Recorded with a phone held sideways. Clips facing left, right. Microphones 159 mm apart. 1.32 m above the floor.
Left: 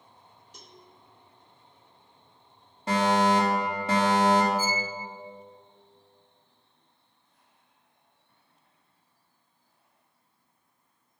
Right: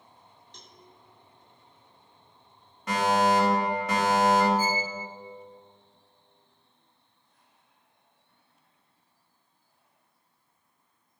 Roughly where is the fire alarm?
Left.